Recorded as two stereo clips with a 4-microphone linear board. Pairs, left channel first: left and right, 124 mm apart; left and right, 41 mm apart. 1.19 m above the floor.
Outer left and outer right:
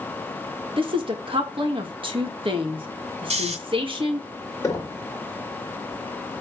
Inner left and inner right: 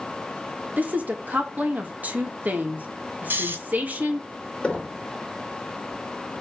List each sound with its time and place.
0.8 s a woman speaking: 45° right (ahead or behind), 1.8 m
3.3 s snoring: 60° right (ahead or behind), 1.8 m
4.6 s knocking: 25° left (ahead or behind), 1.6 m